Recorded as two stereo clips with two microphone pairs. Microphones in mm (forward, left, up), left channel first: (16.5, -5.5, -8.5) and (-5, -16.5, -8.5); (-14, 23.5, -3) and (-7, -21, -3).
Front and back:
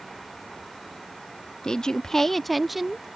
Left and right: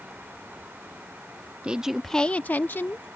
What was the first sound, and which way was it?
A woman speaking, 25° right.